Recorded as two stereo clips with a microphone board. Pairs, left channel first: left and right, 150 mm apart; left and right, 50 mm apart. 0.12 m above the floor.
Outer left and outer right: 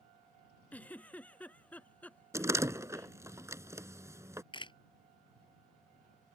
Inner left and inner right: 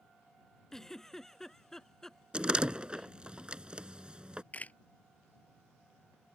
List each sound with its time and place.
0.7 s a giggle: 10° left (ahead or behind)
2.3 s a door slam: 20° right (ahead or behind)
4.5 s a camera shutter: 35° left (ahead or behind)